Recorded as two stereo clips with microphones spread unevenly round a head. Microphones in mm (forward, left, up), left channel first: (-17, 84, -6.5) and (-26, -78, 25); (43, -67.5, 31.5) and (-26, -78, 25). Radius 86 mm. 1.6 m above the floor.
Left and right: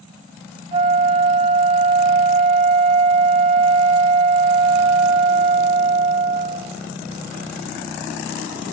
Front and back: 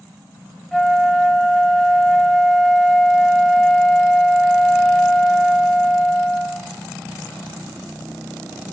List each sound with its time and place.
0.7 s a flute: 70° right, 1.8 m